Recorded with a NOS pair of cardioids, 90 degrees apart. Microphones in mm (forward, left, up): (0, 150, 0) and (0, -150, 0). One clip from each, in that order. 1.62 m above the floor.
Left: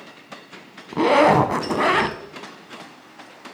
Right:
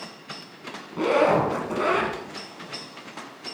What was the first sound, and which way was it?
A zipper, 55° left.